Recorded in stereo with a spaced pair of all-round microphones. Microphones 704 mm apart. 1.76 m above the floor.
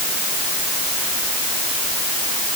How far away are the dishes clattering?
I don't hear dishes clattering.